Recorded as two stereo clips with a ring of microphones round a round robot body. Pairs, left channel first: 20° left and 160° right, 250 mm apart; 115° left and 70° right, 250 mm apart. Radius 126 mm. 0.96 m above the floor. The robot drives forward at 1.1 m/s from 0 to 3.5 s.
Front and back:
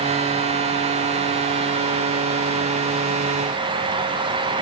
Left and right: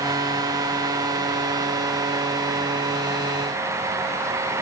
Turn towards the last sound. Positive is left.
No sound to turn to.